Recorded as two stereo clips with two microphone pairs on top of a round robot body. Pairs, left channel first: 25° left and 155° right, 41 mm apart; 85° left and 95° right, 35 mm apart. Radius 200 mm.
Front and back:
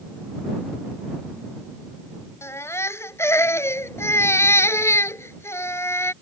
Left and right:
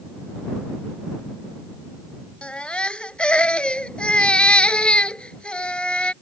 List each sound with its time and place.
2.4 s a baby crying: 25° left